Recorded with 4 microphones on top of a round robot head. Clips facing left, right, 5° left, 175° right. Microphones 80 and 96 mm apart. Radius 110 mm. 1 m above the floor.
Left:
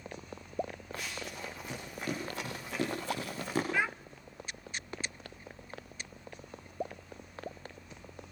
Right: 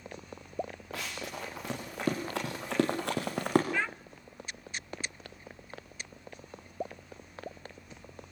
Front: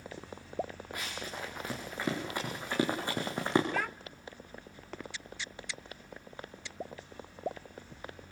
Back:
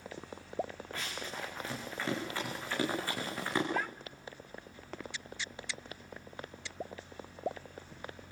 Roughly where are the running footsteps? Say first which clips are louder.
Right 4 dB, front 1 dB; right.